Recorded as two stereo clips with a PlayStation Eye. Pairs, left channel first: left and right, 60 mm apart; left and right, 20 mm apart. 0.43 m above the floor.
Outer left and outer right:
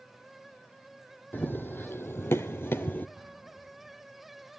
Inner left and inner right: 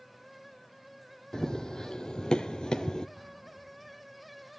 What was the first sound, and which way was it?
Running footsteps, 35° left (ahead or behind).